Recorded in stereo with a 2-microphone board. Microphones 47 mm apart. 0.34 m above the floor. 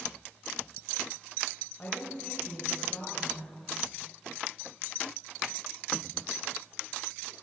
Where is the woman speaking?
40° left (ahead or behind), 1.4 m.